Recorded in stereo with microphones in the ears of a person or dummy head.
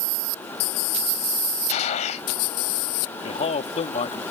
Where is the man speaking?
35° left (ahead or behind).